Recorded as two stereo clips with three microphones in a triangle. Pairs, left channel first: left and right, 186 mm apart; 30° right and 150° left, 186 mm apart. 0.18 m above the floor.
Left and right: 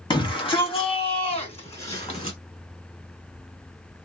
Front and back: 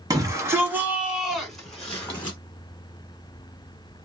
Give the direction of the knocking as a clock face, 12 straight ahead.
I don't hear knocking.